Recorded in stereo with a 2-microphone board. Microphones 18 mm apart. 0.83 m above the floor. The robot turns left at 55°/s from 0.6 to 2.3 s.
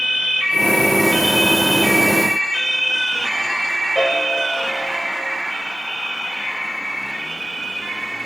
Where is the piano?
55° left (ahead or behind), 3 m.